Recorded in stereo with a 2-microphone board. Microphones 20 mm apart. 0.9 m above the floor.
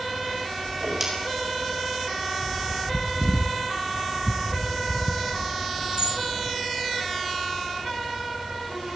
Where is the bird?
50° right (ahead or behind), 3 m.